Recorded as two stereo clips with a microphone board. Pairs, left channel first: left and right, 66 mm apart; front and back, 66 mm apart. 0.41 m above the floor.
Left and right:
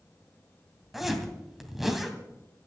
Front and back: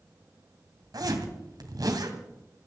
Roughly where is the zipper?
Behind.